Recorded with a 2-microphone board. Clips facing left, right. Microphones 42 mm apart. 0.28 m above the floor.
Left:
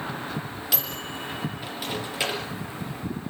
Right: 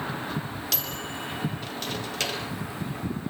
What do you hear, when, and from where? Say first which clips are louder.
0.7 s a microwave: left 2 dB; 10° left (ahead or behind), 4.5 m